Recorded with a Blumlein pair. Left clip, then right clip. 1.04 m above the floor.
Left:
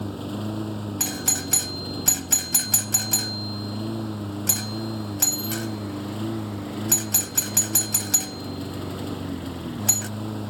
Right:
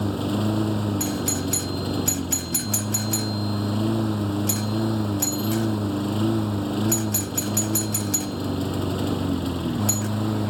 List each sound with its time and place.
0.0 s a lawn mower: 20° right
1.0 s a doorbell: 15° left